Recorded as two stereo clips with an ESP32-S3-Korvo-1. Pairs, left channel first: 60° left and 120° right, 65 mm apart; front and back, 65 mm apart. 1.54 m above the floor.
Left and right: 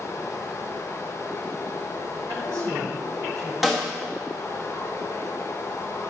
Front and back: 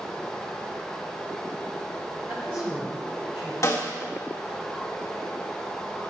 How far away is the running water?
About 1.0 m.